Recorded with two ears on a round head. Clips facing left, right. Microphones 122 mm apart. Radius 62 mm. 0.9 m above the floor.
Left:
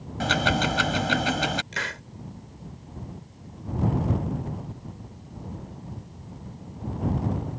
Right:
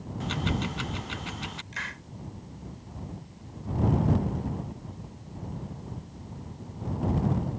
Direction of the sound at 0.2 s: 80° left.